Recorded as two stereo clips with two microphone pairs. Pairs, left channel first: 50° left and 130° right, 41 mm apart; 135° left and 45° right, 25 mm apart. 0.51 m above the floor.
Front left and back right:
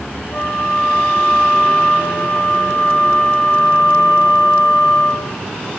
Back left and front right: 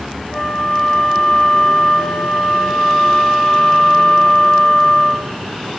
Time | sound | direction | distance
0.3 | a flute | 70° left | 6.5 m